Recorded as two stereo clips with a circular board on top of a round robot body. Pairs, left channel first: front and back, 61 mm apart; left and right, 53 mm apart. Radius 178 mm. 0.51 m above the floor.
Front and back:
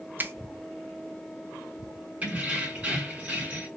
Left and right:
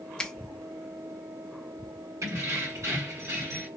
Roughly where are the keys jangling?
Right.